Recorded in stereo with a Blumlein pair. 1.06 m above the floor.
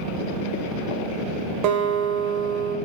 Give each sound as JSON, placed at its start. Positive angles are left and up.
{"t": 1.6, "sound": "a guitar", "azimuth_deg": -40, "distance_m": 0.5}